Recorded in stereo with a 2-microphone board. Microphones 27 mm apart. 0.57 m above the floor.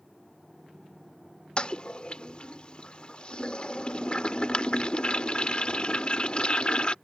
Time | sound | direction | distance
1.6 | a toilet flushing | 35° left (ahead or behind) | ?